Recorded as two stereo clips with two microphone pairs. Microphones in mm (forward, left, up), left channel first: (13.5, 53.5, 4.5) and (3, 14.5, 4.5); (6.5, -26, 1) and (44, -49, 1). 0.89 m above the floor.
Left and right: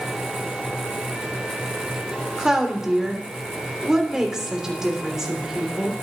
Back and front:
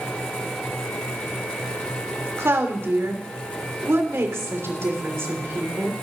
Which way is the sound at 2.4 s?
25° right.